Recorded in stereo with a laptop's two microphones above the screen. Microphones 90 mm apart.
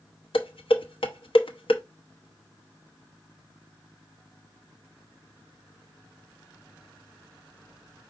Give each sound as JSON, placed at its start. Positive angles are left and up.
{"t": 0.3, "sound": "dishes clattering", "side_deg": 75, "distance_m": 0.8}